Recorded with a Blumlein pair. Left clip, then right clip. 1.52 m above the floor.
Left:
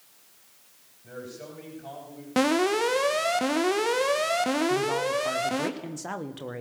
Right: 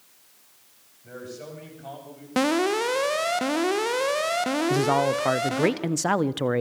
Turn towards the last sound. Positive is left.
turn(degrees=-30)